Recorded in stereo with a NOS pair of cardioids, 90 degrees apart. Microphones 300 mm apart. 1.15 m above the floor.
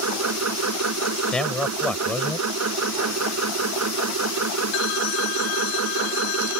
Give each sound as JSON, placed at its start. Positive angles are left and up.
{"t": 0.0, "sound": "a machine running", "azimuth_deg": -60}
{"t": 1.3, "sound": "a man speaking", "azimuth_deg": 5}